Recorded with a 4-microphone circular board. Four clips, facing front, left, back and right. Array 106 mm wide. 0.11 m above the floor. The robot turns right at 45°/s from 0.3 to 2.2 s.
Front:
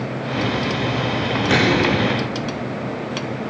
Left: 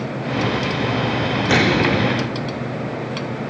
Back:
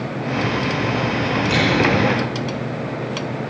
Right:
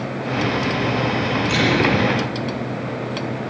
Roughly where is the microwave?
Ahead left.